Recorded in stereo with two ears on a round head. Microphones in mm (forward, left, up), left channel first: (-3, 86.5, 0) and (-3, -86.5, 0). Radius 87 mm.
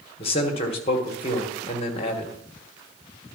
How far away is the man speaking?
About 1.3 m.